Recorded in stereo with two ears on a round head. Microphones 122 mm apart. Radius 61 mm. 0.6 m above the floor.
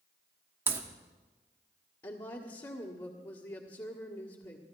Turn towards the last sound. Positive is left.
turn(degrees=35)  # may be behind; listen again after turning